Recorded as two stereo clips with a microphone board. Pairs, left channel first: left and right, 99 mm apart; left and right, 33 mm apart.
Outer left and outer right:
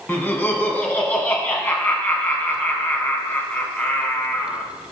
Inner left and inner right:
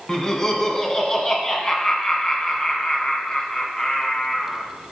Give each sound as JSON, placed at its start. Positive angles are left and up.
{"t": 0.1, "sound": "laughter", "side_deg": 20, "distance_m": 1.0}